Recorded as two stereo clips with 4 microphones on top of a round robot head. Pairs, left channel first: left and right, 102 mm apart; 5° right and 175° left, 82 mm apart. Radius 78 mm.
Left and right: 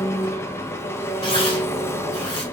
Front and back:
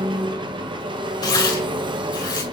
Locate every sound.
0.0 s an engine running: 155° left, 1.1 m
1.2 s tearing paper: 30° left, 4 m